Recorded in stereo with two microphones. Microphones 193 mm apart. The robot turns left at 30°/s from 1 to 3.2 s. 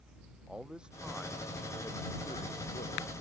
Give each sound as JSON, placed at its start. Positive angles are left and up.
{"t": 0.5, "sound": "a man speaking", "azimuth_deg": -175}